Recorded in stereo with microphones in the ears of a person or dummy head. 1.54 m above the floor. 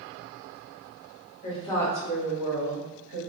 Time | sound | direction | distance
1.4 | a woman speaking | 35° left (ahead or behind) | 0.8 m